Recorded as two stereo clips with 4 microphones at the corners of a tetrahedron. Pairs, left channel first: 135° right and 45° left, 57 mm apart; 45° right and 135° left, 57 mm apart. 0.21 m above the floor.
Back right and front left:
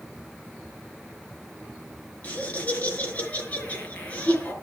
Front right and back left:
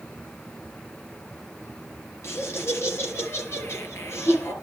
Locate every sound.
2.2 s laughter: 75° right, 4 m